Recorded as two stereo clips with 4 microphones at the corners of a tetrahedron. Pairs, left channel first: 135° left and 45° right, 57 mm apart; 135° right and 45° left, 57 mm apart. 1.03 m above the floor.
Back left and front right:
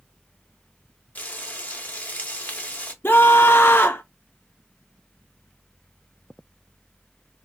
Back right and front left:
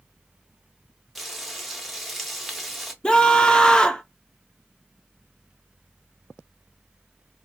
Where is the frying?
135° left, 0.7 m.